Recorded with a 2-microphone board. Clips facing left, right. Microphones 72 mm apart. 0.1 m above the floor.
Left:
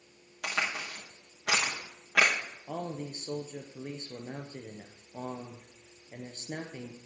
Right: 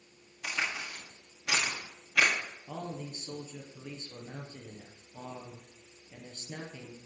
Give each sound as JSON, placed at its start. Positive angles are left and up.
{"t": 0.4, "sound": "a crack", "side_deg": 75, "distance_m": 4.5}
{"t": 2.7, "sound": "a man speaking", "side_deg": 50, "distance_m": 1.9}